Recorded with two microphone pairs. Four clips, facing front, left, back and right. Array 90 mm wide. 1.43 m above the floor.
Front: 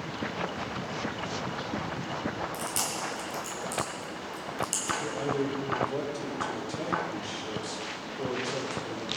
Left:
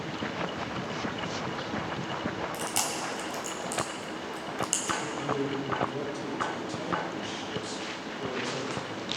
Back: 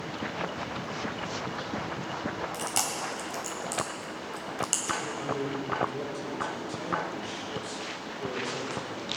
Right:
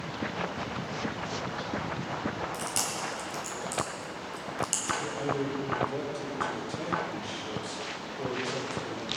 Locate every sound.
2.5 s chewing: 170° left, 1.9 m
5.0 s a man speaking: 25° right, 4 m